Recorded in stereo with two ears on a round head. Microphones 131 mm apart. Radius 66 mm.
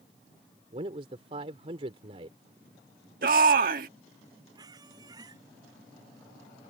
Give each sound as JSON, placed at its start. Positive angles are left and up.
{"t": 0.7, "sound": "a man speaking", "side_deg": -40}
{"t": 3.2, "sound": "a shout", "side_deg": -65}
{"t": 4.5, "sound": "a squeak", "side_deg": -25}